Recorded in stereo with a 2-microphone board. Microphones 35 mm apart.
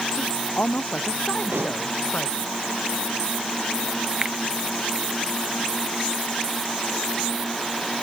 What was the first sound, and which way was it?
A woman speaking, 50° left (ahead or behind).